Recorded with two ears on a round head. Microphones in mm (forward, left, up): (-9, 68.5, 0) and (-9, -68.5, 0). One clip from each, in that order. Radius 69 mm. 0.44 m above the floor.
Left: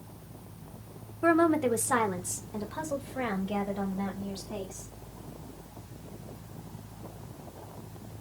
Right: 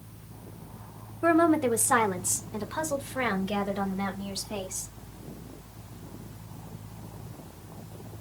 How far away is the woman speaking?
About 1.1 m.